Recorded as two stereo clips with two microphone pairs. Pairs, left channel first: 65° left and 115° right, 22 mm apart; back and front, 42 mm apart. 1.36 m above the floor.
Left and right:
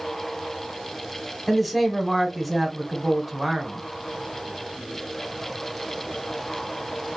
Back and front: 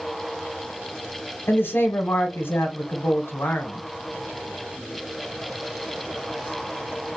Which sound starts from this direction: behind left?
A man speaking, at 1.5 s.